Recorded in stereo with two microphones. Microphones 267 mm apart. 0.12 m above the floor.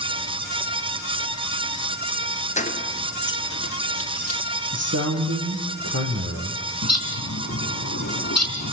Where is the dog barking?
I don't hear a dog barking.